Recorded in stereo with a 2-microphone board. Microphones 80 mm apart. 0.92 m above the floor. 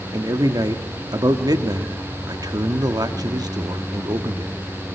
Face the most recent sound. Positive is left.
turn(degrees=-55)  # may be behind; listen again after turning